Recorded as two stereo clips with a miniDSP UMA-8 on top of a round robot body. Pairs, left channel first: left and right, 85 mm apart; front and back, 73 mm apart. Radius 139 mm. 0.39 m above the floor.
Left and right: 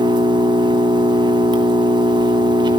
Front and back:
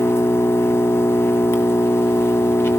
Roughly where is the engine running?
Ahead right.